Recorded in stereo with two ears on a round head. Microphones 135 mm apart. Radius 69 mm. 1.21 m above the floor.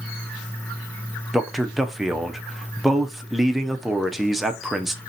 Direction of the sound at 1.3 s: Centre (ahead or behind).